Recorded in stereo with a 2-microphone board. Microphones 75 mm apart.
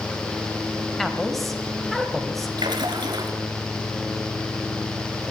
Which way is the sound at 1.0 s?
Centre (ahead or behind).